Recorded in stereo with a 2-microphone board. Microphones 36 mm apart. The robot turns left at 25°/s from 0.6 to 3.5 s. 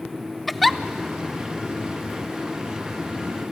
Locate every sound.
0.5 s a giggle: centre (ahead or behind), 0.5 m